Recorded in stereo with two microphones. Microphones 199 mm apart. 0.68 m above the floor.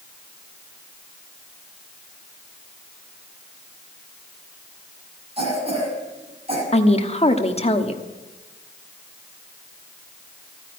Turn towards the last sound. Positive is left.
turn(degrees=30)  # may be behind; listen again after turning